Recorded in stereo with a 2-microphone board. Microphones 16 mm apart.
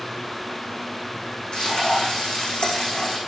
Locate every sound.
1.5 s frying: 80° left, 5.5 m